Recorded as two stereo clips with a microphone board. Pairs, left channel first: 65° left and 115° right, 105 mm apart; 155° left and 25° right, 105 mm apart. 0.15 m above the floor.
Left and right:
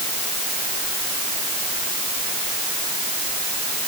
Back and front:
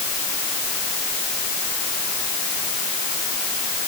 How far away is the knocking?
I don't hear knocking.